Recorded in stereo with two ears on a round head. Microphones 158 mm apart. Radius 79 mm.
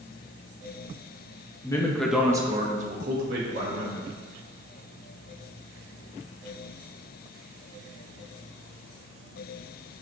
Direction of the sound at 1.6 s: 20° left (ahead or behind).